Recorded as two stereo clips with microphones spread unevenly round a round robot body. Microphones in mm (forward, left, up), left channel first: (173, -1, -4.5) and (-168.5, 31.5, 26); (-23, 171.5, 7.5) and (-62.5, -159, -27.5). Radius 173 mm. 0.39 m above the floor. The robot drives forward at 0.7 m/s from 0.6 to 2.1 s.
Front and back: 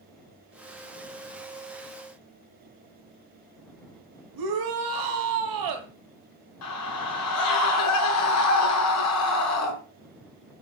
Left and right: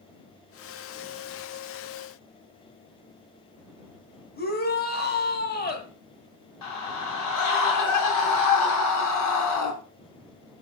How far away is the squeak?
No squeak in this recording.